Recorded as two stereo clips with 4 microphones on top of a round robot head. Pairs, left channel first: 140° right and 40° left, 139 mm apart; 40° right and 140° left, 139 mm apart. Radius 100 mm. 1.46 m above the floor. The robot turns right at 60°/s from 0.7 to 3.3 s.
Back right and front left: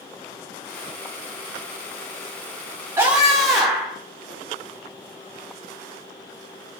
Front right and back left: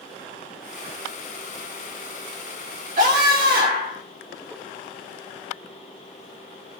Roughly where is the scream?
Left.